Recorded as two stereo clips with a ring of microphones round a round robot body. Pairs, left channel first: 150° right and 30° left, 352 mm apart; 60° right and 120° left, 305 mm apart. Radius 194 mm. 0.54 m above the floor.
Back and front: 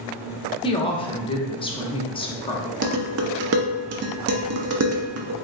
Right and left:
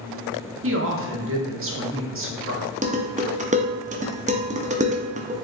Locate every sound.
0.6 s a woman speaking: 140° left, 0.9 m
2.8 s dishes clattering: 60° left, 0.7 m